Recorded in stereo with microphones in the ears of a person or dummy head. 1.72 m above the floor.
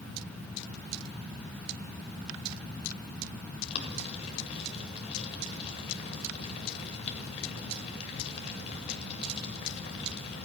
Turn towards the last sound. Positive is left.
turn(degrees=35)  # may be behind; listen again after turning